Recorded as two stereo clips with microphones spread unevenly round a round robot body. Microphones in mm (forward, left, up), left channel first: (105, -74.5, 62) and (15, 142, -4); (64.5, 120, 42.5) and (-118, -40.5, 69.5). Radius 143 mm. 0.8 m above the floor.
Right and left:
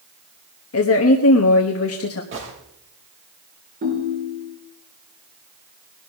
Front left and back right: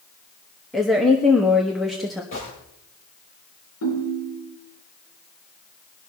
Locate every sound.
0.7 s a woman speaking: 45° right, 1.3 m
2.3 s a gunshot: 80° left, 6.5 m
3.8 s a ringtone: 60° left, 4.5 m